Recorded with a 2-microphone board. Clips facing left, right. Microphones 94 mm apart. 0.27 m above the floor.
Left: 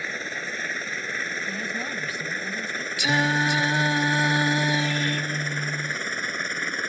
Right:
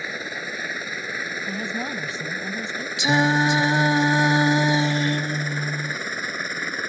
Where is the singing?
25° right (ahead or behind).